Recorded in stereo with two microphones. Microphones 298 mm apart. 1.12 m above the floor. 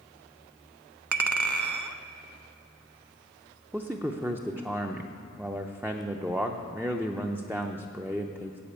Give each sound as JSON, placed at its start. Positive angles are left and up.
{"t": 1.1, "sound": "a clink", "side_deg": -75, "distance_m": 0.6}
{"t": 3.7, "sound": "a man speaking", "side_deg": -5, "distance_m": 0.5}